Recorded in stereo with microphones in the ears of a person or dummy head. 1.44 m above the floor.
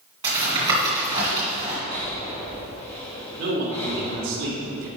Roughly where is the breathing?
Left.